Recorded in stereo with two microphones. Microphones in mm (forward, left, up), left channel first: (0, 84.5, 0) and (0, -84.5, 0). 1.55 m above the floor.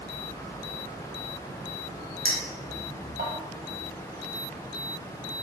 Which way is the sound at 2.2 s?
60° right (ahead or behind).